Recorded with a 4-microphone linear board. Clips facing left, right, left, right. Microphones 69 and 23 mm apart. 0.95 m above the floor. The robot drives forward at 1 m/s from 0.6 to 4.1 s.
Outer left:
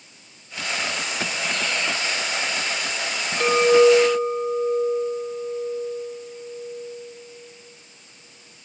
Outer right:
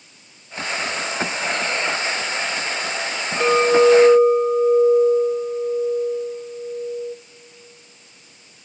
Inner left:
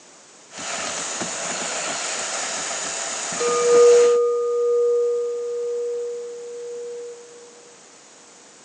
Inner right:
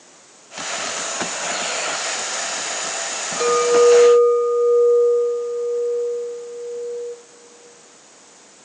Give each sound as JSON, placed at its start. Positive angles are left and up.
{"t": 3.4, "sound": "a clink", "side_deg": -15, "distance_m": 1.1}